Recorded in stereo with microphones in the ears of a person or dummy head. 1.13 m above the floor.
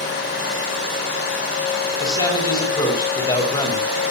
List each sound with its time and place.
2.0 s a man speaking: 20° left (ahead or behind), 6 m